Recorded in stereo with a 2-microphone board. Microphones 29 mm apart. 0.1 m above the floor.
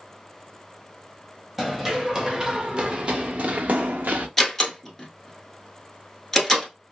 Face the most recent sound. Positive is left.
turn(degrees=10)  # may be behind; listen again after turning